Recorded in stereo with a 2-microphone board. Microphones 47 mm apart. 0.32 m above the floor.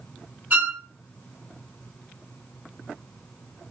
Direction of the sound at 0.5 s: 35° right (ahead or behind).